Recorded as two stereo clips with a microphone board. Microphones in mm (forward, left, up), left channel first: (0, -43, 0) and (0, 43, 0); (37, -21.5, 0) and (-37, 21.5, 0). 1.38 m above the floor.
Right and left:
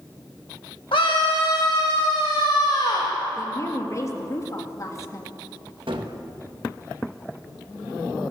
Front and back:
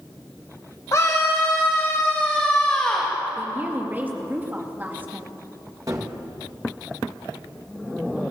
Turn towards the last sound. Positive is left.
turn(degrees=100)